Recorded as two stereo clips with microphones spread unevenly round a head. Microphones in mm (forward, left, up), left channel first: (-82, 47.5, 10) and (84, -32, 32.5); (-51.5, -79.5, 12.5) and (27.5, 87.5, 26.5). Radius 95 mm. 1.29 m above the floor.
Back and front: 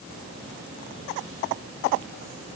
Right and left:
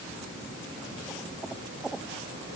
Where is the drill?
I don't hear a drill.